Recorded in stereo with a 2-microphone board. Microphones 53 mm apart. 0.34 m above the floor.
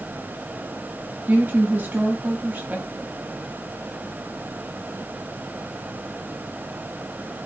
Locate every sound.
1.3 s a woman speaking: 30° right (ahead or behind), 2.0 m